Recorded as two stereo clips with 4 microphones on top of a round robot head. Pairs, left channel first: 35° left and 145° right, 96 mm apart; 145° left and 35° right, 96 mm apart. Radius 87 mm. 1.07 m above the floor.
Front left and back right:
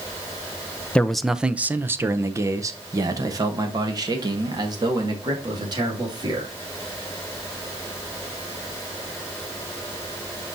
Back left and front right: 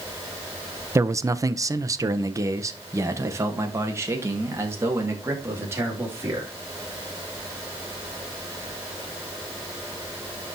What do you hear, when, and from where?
0.9 s a man speaking: 30° right, 0.5 m; by 6.5 s 100° right, 3 m